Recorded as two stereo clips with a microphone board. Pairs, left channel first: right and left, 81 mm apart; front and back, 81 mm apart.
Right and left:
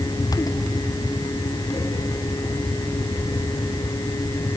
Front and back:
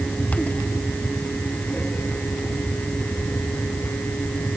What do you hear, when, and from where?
Only background noise.